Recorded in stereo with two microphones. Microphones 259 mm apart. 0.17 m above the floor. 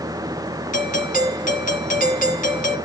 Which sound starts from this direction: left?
A doorbell, at 0.7 s.